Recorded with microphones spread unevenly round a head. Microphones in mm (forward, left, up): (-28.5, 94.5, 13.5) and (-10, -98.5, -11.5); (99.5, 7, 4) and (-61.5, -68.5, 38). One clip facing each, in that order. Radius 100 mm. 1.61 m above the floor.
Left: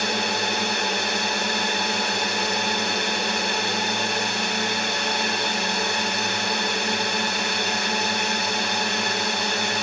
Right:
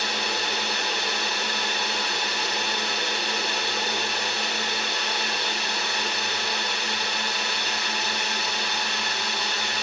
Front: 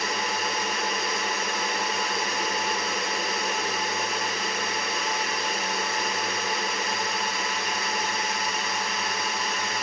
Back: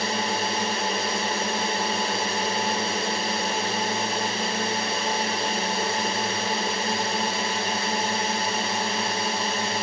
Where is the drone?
140° left.